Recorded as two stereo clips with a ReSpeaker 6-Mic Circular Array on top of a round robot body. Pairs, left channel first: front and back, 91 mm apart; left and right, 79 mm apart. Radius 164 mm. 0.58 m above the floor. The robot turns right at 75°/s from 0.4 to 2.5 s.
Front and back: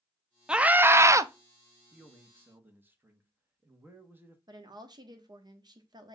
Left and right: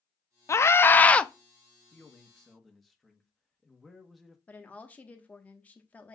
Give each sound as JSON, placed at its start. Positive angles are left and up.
{"t": 0.5, "sound": "a scream", "azimuth_deg": 105, "distance_m": 0.6}
{"t": 1.9, "sound": "a man speaking", "azimuth_deg": 130, "distance_m": 1.2}
{"t": 4.5, "sound": "a woman speaking", "azimuth_deg": 155, "distance_m": 1.1}